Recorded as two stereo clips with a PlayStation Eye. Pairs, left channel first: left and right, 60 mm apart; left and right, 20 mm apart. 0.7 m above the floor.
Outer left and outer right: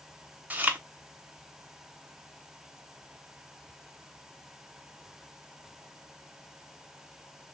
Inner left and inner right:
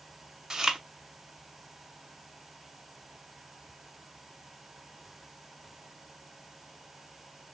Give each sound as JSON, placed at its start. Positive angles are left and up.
{"t": 0.5, "sound": "chewing", "side_deg": -30, "distance_m": 0.9}